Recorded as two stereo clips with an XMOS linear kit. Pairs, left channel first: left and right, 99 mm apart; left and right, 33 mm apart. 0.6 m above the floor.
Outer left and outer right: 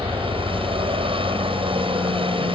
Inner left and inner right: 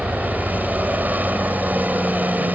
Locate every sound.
0.0 s a helicopter: 65° right (ahead or behind)